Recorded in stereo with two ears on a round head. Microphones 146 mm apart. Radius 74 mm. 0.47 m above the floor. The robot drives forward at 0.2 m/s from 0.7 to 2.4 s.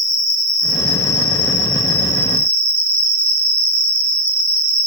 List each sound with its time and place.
0.0 s an insect: 25° right (ahead or behind), 0.8 m; by 4.9 s 15° right (ahead or behind), 1.1 m